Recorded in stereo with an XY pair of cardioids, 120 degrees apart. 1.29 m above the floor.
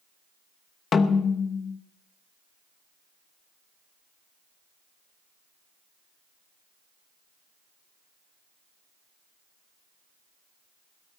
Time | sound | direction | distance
0.9 | a snare drum | 40° left | 1.1 m